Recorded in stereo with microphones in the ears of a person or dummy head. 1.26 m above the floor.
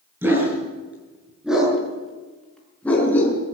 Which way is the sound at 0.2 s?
20° right (ahead or behind).